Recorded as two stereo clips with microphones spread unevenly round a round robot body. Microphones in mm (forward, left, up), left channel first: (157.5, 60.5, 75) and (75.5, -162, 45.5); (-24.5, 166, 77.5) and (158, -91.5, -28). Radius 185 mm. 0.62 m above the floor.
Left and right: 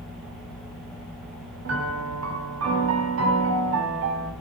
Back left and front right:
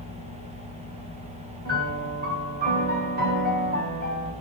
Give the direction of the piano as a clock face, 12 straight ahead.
4 o'clock.